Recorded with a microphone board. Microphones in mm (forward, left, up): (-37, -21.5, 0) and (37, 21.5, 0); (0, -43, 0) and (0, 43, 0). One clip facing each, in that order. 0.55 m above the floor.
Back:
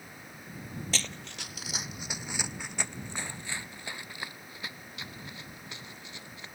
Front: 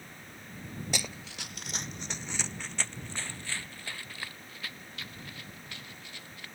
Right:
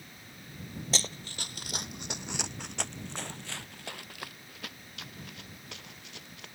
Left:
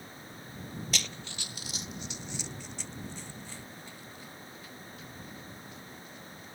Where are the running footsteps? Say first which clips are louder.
Front 1 dB, right 2 dB; 40° right; by 6.5 s 80° right.